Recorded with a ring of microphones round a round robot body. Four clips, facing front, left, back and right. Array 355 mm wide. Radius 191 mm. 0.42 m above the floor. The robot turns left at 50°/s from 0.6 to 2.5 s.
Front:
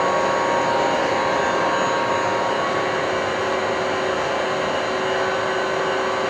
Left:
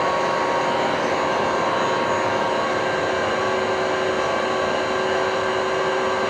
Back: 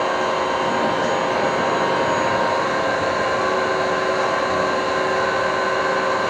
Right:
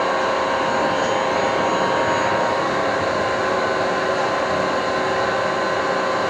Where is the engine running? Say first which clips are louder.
Right 1 dB, front 1 dB; 10° right, 7 m; by 6.3 s 105° right, 7 m.